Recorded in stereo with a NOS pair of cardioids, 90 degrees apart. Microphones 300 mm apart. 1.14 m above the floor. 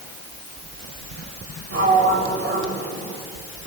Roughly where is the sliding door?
Ahead right.